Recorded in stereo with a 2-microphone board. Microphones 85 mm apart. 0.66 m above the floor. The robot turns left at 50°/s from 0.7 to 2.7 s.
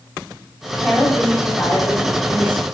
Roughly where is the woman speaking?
Behind.